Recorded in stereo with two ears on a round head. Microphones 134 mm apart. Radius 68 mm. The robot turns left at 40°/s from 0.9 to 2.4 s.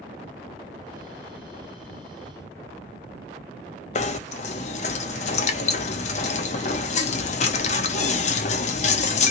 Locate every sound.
4.0 s knocking: 50° left (ahead or behind), 0.6 m